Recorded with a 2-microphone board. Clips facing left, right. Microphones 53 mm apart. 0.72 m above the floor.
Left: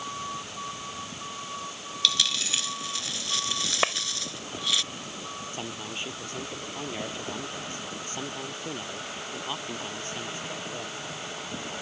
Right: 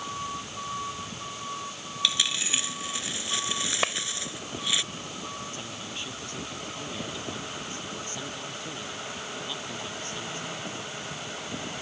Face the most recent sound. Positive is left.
turn(degrees=30)  # may be behind; listen again after turning